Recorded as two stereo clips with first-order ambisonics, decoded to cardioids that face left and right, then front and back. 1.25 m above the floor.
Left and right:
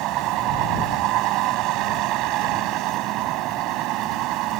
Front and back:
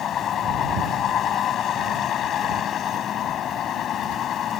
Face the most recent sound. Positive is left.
turn(degrees=-55)